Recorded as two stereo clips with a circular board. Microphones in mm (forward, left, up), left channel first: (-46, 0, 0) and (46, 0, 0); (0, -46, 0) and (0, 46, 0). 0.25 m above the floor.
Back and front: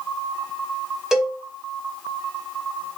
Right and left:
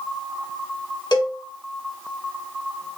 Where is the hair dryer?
No hair dryer in this recording.